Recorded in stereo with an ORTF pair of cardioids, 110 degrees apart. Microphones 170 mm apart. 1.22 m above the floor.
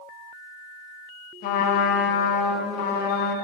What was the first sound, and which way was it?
A trumpet, 60° left.